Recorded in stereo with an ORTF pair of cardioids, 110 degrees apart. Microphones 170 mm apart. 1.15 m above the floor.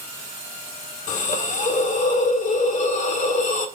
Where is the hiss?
50° left, 1.7 m.